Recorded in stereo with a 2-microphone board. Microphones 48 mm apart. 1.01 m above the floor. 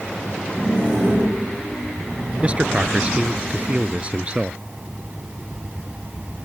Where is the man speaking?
25° right (ahead or behind).